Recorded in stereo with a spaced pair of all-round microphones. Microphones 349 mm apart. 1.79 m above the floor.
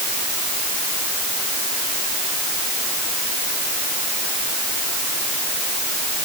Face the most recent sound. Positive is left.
No sound to turn to.